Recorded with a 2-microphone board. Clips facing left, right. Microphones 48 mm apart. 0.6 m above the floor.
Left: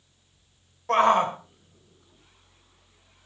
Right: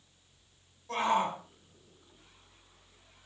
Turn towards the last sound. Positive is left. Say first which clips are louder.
# left 9 dB
turn(degrees=55)  # may be behind; listen again after turning